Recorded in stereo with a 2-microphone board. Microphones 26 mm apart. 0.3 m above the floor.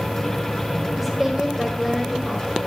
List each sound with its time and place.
1.0 s a woman speaking: 10° right (ahead or behind), 1.5 m